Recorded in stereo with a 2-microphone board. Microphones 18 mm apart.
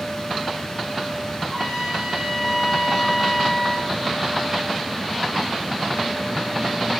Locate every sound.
1.4 s a trumpet: 55° left (ahead or behind), 4 m